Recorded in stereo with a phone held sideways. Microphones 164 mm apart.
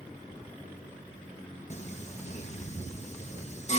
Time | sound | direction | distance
1.7 | singing | 45° left (ahead or behind) | 1.4 m